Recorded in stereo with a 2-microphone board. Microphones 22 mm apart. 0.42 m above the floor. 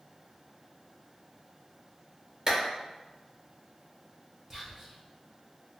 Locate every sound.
2.5 s a clap: 35° right (ahead or behind), 1.1 m
4.5 s whispering: 20° right (ahead or behind), 1.0 m